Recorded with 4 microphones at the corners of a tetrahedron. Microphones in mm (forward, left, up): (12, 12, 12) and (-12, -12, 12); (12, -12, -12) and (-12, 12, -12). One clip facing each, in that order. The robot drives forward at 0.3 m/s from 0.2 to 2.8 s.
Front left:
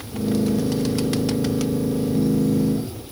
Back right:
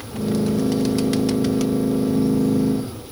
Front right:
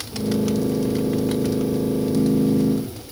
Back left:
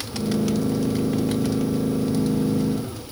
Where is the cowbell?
I don't hear a cowbell.